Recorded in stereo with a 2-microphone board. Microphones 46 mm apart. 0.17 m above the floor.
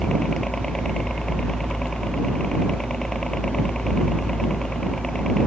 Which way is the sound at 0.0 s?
15° left (ahead or behind).